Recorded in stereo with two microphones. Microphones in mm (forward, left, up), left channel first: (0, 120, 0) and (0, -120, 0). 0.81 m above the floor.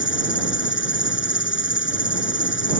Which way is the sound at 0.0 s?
50° left (ahead or behind).